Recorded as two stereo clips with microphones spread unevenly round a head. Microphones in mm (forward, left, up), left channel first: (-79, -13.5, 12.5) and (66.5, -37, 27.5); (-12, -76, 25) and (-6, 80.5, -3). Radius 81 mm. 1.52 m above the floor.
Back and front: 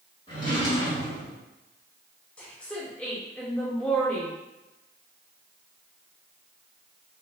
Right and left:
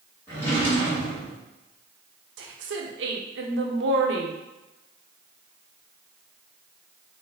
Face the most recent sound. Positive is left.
turn(degrees=85)